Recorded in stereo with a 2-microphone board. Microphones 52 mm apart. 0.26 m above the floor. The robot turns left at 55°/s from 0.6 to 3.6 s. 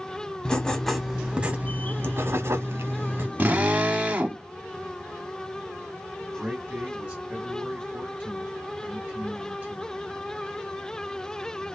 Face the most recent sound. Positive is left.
turn(degrees=-30)  # may be behind; listen again after turning